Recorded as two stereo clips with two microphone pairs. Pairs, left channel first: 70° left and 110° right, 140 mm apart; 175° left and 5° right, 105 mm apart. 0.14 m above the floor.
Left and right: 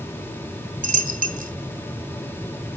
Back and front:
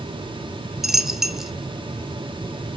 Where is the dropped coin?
90° right, 0.5 m.